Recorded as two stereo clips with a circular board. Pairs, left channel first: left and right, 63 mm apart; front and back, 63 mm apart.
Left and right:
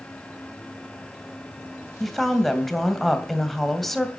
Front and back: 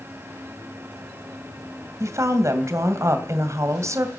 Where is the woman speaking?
Straight behind, 2 m.